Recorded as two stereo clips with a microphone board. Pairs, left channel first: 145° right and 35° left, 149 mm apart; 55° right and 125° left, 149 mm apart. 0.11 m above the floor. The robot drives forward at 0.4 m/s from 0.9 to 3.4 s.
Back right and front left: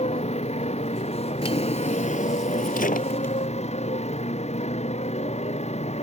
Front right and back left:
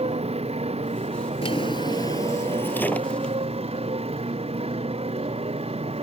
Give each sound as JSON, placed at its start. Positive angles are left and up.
{"t": 0.0, "sound": "a motorcycle", "azimuth_deg": 170}
{"t": 1.4, "sound": "a drawer", "azimuth_deg": -100}